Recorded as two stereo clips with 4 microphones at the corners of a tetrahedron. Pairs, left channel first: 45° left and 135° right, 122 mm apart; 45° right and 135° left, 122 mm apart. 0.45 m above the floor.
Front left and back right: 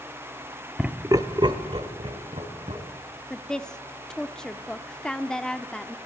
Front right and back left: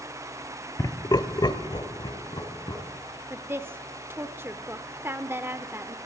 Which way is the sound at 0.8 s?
55° right.